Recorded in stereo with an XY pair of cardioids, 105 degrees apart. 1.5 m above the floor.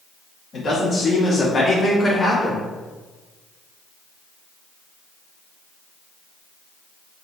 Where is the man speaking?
55° left, 2.0 m; by 2.7 s 10° left, 1.1 m.